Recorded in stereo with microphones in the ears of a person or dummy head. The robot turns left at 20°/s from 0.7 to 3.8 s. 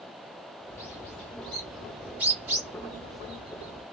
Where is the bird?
20° left, 1.6 m; by 3.8 s 45° right, 1.6 m.